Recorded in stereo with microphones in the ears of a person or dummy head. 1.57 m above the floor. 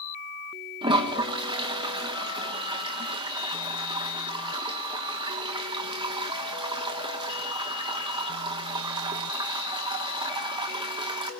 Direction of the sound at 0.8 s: 25° right (ahead or behind).